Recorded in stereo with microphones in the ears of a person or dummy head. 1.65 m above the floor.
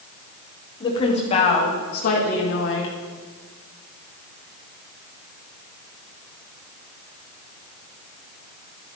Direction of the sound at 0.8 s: 20° left (ahead or behind).